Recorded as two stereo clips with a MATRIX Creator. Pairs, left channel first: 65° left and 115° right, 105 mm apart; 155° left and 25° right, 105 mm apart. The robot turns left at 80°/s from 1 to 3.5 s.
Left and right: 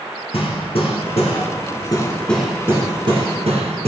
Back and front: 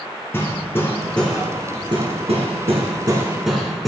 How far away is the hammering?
About 2 m.